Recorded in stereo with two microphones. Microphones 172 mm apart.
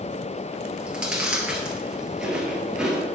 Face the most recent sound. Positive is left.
turn(degrees=-5)  # may be behind; listen again after turning